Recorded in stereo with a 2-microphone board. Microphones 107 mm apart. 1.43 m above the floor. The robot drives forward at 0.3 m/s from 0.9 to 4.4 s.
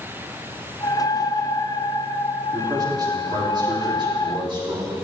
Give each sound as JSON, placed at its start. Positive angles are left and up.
{"t": 2.5, "sound": "a man speaking", "side_deg": -40, "distance_m": 3.5}